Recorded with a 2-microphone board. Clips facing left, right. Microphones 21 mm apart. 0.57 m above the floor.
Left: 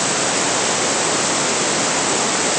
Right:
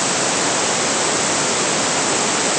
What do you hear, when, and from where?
Only background noise.